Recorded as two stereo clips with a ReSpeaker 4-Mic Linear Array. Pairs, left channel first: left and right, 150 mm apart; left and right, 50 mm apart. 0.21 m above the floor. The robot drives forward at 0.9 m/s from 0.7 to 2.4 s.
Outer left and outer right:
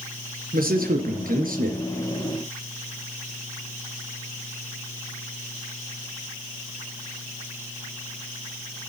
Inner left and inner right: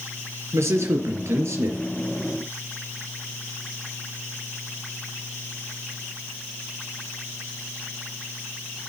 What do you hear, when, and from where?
0.5 s a man speaking: 70° right (ahead or behind), 3.5 m; by 1.8 s 65° right (ahead or behind), 3.5 m